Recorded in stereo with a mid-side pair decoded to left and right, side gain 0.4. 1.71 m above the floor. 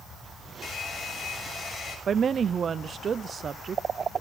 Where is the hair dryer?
45° left, 7 m.